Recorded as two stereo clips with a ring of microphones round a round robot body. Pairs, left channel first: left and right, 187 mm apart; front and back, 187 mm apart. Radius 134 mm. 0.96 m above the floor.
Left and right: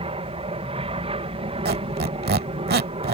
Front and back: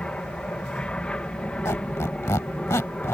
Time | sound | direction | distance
0.0 | an aircraft | 80° right | ?
1.6 | a squeak | 75° right | ?